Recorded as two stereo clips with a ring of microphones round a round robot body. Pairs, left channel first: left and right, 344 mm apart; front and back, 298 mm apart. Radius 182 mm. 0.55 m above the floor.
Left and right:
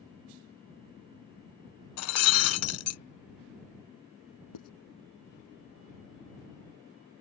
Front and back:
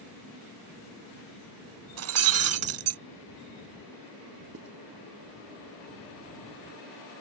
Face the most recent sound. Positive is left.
turn(degrees=130)